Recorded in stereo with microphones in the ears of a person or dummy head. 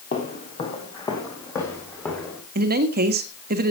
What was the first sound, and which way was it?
Footsteps, 40° left (ahead or behind).